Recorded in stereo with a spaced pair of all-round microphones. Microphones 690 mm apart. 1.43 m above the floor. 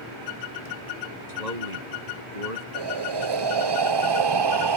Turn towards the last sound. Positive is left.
turn(degrees=-40)  # may be behind; listen again after turning